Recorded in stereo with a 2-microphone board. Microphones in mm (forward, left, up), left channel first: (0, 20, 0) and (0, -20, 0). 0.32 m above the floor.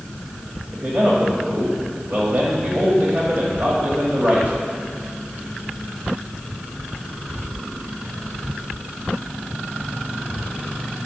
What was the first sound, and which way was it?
A man speaking, 45° right (ahead or behind).